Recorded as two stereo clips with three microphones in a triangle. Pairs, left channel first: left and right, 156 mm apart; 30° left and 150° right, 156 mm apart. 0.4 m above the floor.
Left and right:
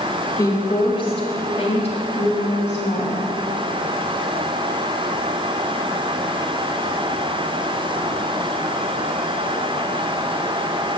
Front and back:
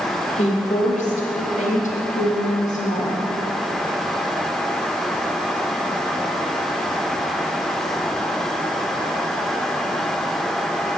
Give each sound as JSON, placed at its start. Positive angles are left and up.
{"t": 0.4, "sound": "a woman speaking", "azimuth_deg": 30, "distance_m": 1.4}